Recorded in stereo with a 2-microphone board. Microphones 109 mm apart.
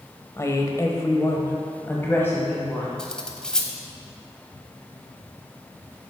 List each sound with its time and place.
0.4 s a woman speaking: 25° left (ahead or behind), 1.0 m; by 2.9 s 15° left (ahead or behind), 1.7 m
3.0 s cutlery clinking: 5° left (ahead or behind), 0.9 m